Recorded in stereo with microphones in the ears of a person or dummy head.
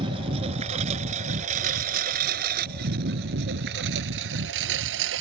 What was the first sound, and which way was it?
A lawn mower, 35° right (ahead or behind).